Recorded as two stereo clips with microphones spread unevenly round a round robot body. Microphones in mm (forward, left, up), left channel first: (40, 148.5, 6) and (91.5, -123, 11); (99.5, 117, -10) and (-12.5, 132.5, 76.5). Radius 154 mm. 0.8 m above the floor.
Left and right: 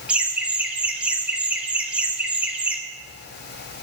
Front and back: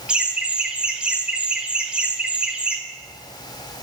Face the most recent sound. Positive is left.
turn(degrees=5)